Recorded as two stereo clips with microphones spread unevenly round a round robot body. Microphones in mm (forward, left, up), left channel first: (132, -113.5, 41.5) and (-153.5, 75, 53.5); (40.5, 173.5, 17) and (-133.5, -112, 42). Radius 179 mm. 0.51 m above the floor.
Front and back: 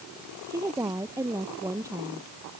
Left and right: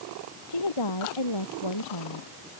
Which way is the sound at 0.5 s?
65° left.